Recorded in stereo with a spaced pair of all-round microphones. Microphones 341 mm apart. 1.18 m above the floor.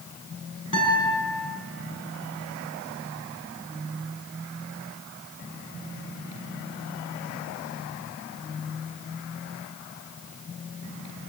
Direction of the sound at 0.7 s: 65° left (ahead or behind).